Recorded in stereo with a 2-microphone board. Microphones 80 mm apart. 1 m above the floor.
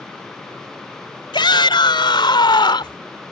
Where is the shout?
80° left.